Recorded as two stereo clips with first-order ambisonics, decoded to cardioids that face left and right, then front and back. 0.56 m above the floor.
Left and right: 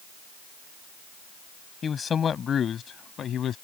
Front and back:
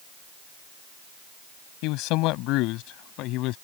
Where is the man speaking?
20° left; by 3.5 s 35° left.